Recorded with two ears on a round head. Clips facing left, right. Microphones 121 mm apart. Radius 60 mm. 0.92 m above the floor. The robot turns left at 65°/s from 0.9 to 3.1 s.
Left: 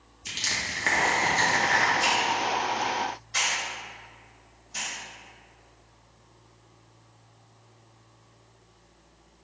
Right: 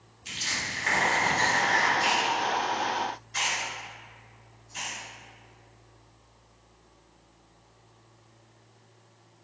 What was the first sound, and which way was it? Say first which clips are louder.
Crushing: left 1 dB; 55° left (ahead or behind).